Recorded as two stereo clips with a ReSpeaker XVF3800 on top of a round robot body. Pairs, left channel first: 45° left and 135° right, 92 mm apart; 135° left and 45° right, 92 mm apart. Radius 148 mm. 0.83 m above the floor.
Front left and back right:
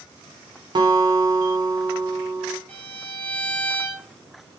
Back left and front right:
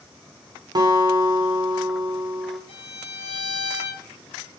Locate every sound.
0.8 s a guitar: 95° right, 1.2 m
2.7 s a violin: 120° left, 2 m